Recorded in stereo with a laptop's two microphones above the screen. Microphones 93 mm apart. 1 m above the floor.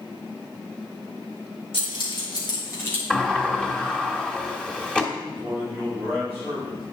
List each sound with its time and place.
1.7 s keys jangling: 70° left (ahead or behind), 2.5 m; by 3.0 s 20° left (ahead or behind), 1.7 m
3.1 s a sliding door: 10° left (ahead or behind), 1.3 m
5.2 s a man speaking: 25° right (ahead or behind), 4 m